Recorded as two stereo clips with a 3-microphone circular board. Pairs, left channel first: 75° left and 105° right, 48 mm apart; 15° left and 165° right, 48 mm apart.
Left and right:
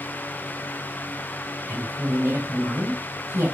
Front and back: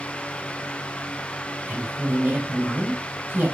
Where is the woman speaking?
120° right, 4.5 m.